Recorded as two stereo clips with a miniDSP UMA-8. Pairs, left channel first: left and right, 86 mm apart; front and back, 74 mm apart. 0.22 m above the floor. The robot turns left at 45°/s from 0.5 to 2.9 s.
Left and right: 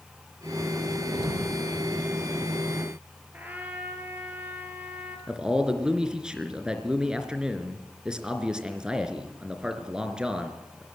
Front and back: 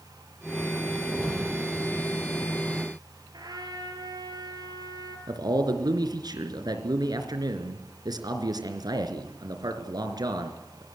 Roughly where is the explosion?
Ahead right.